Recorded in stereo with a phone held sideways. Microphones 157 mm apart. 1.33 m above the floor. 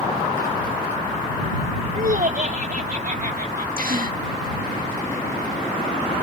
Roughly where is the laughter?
Right.